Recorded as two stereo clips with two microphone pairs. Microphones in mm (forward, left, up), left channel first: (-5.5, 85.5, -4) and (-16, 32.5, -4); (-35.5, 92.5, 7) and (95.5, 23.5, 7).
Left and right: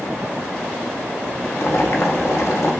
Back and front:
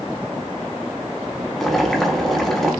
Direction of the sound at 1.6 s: 65° left.